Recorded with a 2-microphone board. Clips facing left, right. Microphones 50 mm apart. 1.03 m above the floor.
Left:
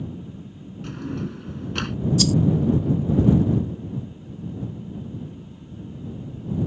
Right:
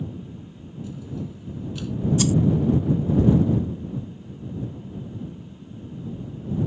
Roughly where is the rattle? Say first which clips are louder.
Left 1 dB; right.